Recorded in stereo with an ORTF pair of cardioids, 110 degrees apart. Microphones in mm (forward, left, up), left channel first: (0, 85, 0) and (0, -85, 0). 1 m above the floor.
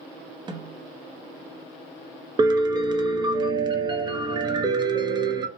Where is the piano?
25° right, 0.6 m.